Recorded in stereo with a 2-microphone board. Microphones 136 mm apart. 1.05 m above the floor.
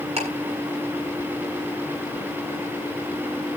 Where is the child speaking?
I don't hear a child speaking.